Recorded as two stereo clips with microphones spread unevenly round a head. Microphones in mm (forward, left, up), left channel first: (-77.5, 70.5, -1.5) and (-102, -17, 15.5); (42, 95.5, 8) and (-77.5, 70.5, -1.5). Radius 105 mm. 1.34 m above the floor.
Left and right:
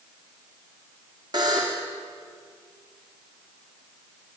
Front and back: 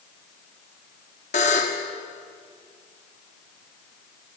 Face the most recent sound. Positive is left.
turn(degrees=-40)